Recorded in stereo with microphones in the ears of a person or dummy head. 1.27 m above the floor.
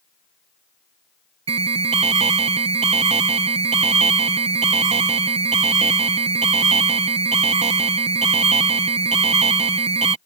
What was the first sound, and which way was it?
An alarm, 30° right (ahead or behind).